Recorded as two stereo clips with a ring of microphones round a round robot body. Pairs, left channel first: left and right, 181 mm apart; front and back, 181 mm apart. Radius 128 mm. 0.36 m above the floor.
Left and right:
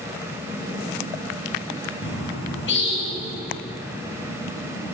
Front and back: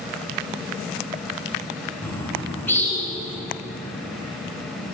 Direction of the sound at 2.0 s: 80° left.